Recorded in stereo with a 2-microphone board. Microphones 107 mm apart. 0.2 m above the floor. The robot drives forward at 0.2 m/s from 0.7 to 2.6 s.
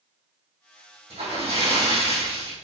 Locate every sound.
1.1 s a splash: 65° right (ahead or behind), 2 m; by 2.5 s 60° right (ahead or behind), 2.5 m